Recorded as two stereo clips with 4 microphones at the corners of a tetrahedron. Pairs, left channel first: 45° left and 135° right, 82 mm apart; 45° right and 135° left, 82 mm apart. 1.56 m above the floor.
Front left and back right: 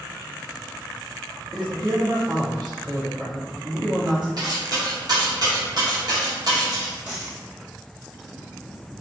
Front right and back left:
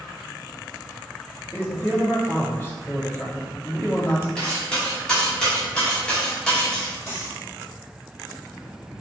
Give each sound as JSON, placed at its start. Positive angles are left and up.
{"t": 1.5, "sound": "a man speaking", "azimuth_deg": -105, "distance_m": 1.2}
{"t": 4.4, "sound": "cutlery clinking", "azimuth_deg": -120, "distance_m": 1.1}
{"t": 7.1, "sound": "a dropped coin", "azimuth_deg": -90, "distance_m": 1.9}